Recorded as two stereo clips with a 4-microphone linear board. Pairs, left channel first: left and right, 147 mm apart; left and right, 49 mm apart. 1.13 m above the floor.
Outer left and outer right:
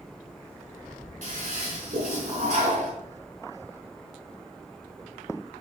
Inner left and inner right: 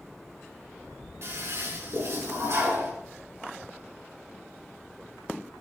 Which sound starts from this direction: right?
A toilet flushing, at 1.2 s.